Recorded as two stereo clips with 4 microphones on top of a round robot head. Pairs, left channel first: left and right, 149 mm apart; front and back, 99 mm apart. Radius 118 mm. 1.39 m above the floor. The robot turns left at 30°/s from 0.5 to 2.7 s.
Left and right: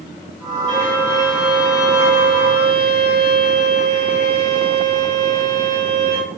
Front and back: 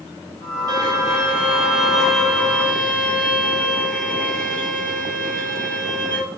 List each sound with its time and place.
0.7 s a violin: 135° left, 5 m; by 6.2 s 75° left, 5 m